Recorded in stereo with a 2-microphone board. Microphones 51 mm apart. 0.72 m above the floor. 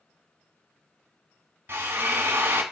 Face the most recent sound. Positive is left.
turn(degrees=-45)  # may be behind; listen again after turning